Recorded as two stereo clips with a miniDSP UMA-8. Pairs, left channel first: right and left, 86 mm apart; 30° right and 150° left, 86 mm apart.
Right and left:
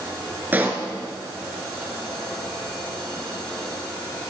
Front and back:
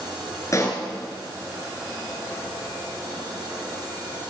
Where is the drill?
I don't hear a drill.